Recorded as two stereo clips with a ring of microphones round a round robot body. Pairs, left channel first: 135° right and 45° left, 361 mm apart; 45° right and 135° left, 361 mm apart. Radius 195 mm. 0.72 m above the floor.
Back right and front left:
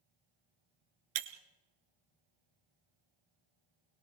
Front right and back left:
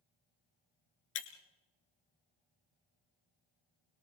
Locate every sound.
1.1 s breaking glass: 10° left, 1.2 m